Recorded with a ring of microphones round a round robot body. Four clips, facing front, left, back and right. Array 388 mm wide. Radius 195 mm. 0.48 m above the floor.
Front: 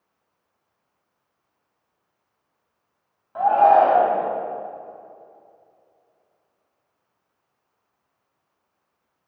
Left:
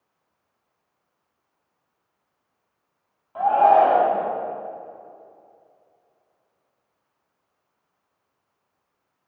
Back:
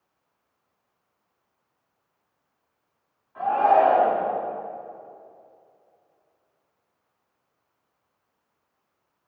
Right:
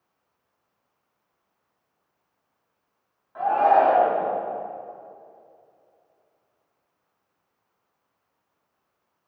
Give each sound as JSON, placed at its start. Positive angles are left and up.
{"t": 3.4, "sound": "a shout", "azimuth_deg": 25, "distance_m": 3.5}